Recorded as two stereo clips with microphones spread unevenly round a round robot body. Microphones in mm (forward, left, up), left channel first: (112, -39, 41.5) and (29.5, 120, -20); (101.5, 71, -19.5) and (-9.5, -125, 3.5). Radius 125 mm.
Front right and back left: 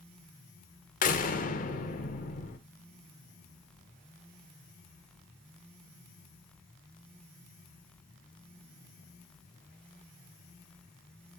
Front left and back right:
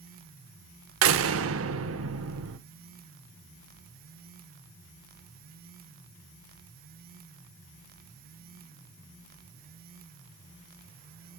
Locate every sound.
1.0 s a door slam: 125° right, 1.1 m